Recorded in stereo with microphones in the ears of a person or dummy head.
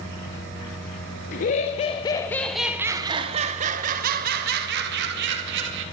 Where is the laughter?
50° left (ahead or behind), 1.1 m; by 5.8 s 70° right (ahead or behind), 2.5 m.